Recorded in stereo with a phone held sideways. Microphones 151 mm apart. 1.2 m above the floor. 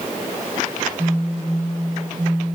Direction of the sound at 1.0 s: 15° right (ahead or behind).